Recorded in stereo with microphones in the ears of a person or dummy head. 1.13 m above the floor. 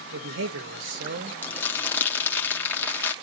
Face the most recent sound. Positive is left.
turn(degrees=10)  # may be behind; listen again after turning